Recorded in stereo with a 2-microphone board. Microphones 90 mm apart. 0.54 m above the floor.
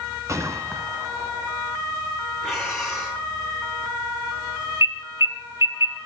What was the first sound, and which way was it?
A gunshot, 35° right (ahead or behind).